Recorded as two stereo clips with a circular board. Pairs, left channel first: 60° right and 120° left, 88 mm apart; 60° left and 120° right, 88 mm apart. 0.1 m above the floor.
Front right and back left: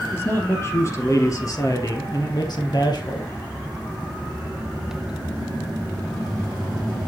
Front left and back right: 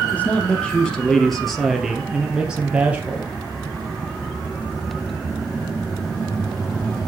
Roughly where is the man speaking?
Ahead.